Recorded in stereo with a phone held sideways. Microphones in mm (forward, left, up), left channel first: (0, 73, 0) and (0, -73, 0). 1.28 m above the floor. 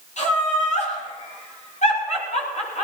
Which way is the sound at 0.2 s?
55° left (ahead or behind).